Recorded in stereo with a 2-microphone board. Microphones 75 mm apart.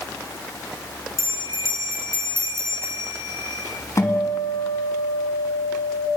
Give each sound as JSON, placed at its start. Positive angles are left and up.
{"t": 1.2, "sound": "a bell", "side_deg": -40, "distance_m": 3.0}
{"t": 4.0, "sound": "a guitar", "side_deg": 45, "distance_m": 2.5}